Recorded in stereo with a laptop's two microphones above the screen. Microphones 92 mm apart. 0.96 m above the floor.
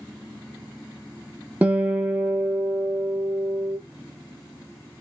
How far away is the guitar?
About 0.9 m.